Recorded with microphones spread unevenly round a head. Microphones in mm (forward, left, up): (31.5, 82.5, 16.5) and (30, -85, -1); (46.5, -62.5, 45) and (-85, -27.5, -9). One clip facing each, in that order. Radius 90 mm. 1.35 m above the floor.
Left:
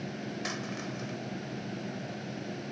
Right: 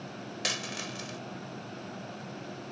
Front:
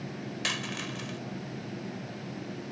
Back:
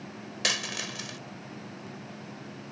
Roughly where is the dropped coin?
Behind right.